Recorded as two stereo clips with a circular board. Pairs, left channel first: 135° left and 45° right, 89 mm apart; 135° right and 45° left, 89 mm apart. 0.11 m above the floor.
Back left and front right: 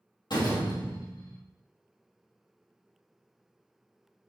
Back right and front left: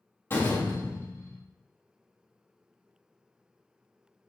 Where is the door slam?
165° left, 3 m.